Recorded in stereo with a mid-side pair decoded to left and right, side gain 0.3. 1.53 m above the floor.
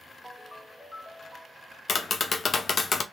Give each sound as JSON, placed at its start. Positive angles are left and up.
{"t": 0.2, "sound": "a ringtone", "azimuth_deg": 30, "distance_m": 1.5}
{"t": 1.9, "sound": "tapping", "azimuth_deg": 55, "distance_m": 0.5}